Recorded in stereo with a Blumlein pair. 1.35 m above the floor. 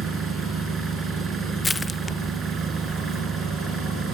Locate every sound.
0.0 s an engine running: 15° right
1.6 s crushing: 10° left